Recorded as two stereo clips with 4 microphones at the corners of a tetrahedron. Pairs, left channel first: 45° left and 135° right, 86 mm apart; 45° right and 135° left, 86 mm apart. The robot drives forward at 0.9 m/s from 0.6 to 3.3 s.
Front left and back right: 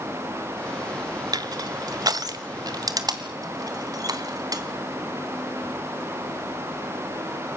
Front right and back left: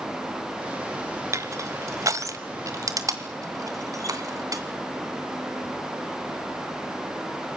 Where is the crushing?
175° right, 0.7 m; by 4.6 s straight behind, 2.5 m.